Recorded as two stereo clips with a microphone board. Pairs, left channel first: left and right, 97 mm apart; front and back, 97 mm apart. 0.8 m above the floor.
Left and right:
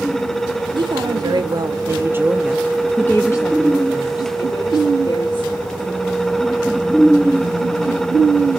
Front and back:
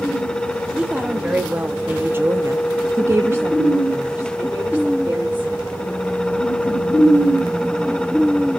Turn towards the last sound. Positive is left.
turn(degrees=105)